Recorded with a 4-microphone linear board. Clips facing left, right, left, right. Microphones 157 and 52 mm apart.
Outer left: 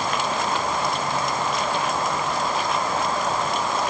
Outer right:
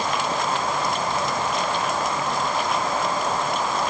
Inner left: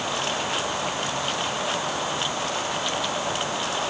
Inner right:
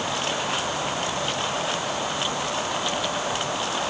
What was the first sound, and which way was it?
Only background noise.